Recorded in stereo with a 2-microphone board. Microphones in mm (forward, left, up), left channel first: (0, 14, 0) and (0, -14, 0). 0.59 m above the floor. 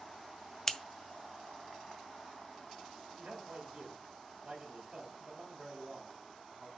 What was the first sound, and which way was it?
Scissors, 20° left (ahead or behind).